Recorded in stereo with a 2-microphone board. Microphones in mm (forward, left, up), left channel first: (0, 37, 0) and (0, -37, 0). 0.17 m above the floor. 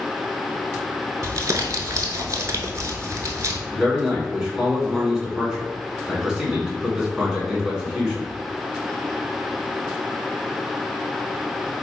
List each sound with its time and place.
1.2 s crumpling: 45° right (ahead or behind), 0.7 m
3.7 s a man speaking: 10° right (ahead or behind), 1.3 m